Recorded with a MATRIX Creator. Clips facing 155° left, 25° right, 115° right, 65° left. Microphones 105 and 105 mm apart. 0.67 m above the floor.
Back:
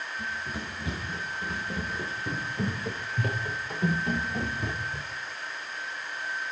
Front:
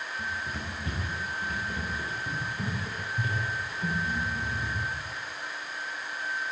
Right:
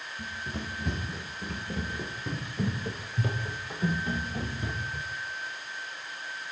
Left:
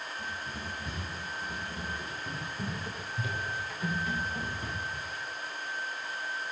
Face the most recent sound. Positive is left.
turn(degrees=175)